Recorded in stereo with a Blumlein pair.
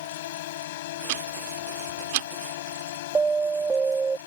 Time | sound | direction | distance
0.0 | a drone | 55° left | ?
1.1 | ticking | 50° right | ?
3.1 | an alarm | 15° right | ?